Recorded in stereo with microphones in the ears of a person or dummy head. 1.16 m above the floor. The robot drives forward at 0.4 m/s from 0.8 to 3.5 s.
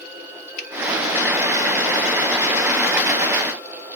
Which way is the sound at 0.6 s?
55° left (ahead or behind).